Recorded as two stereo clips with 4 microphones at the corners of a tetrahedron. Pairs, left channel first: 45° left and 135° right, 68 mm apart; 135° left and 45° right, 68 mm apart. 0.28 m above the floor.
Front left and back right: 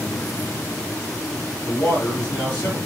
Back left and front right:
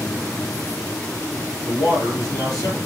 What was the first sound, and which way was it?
A man speaking, 105° left.